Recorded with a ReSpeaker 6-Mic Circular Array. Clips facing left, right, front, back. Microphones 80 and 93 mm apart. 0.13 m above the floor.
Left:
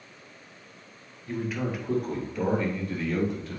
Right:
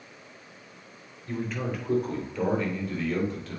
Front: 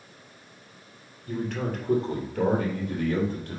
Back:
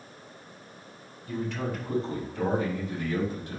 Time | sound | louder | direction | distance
1.3 | a man speaking | left 1 dB, front 2 dB | 5° left | 2.5 m